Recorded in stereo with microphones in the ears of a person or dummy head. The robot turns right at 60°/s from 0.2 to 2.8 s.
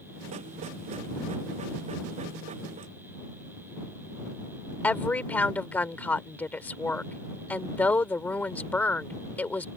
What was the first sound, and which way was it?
A woman speaking, 10° left (ahead or behind).